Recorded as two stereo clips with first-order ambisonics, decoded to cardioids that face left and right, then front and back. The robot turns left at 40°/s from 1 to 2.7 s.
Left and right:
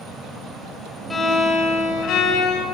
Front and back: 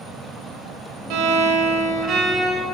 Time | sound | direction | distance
1.1 | a violin | 170° left | 1.3 m